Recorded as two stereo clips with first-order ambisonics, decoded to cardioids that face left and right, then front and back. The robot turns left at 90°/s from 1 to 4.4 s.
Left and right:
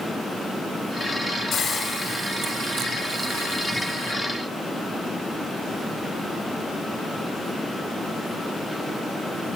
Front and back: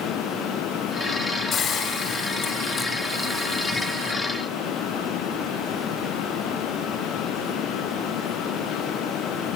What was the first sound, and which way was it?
A hiss, 60° left.